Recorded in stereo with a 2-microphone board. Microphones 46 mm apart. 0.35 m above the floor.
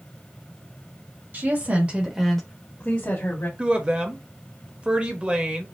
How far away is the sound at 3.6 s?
About 0.9 m.